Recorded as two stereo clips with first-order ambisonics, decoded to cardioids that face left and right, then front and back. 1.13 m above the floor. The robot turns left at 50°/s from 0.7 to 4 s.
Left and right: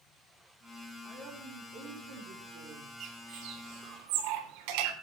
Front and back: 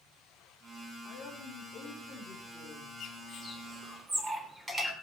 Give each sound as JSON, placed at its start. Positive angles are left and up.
{"t": 1.0, "sound": "a woman speaking", "azimuth_deg": -10, "distance_m": 4.5}
{"t": 3.0, "sound": "a bird", "azimuth_deg": -50, "distance_m": 3.5}